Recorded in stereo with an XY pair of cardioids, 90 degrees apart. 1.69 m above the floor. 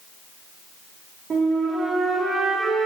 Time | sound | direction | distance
1.3 | a flute | 55° right | 4 m